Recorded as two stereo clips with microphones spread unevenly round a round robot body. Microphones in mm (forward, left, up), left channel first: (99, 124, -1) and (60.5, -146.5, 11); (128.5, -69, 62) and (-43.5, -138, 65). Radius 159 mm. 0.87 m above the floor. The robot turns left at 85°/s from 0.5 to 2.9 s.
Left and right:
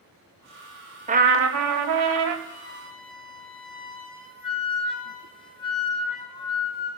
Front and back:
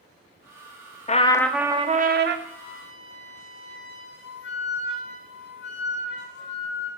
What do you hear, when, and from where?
1.1 s a trumpet: 30° right, 0.8 m; by 2.4 s 140° right, 0.8 m
2.5 s a flute: 45° left, 1.6 m; by 6.9 s 10° left, 1.6 m